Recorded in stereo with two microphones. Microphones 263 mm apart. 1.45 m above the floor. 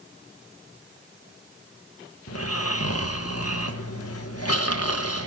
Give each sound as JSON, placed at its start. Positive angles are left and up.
{"t": 2.3, "sound": "snoring", "side_deg": 65, "distance_m": 1.9}